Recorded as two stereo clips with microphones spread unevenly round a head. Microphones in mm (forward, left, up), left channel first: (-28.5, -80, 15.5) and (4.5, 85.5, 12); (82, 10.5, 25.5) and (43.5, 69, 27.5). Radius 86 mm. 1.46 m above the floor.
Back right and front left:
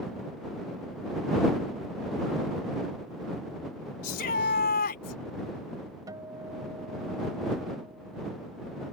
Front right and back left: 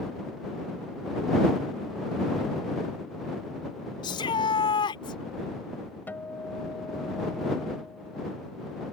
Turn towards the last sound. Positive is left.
turn(degrees=5)